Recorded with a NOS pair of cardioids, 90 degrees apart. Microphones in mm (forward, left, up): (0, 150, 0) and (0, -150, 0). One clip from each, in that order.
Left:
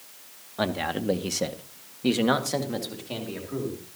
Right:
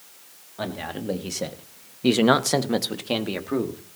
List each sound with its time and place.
0.6 s a man speaking: 30° left, 2.5 m; by 3.8 s 80° right, 3 m